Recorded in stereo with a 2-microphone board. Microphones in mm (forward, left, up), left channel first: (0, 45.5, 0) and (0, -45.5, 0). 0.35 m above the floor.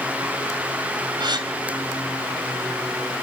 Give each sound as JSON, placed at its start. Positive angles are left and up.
{"t": 1.2, "sound": "a gasp", "side_deg": -55, "distance_m": 2.5}